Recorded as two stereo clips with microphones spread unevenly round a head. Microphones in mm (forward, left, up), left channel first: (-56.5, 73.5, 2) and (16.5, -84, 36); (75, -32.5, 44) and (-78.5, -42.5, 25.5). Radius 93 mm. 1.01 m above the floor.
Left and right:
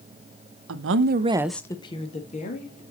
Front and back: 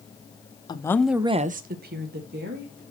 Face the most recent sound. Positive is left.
turn(degrees=160)